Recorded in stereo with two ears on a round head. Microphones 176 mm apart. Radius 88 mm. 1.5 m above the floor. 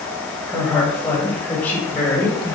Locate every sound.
0.5 s a woman speaking: 5° left (ahead or behind), 6.5 m; by 2.5 s 15° left (ahead or behind), 5.5 m